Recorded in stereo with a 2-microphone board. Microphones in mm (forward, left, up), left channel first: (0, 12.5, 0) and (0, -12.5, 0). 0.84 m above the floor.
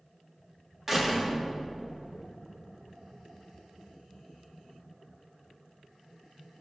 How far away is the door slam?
About 1.1 m.